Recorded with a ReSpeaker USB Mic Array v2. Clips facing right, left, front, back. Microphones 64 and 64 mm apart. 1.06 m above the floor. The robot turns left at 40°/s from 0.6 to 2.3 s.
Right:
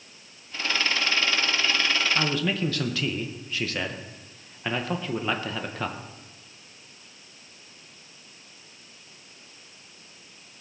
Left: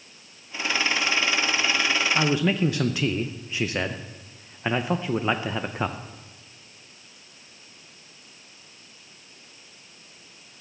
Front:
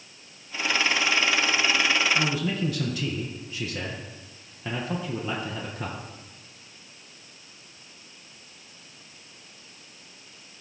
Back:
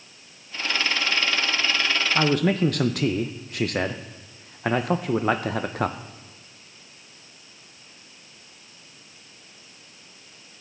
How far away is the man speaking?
About 0.5 m.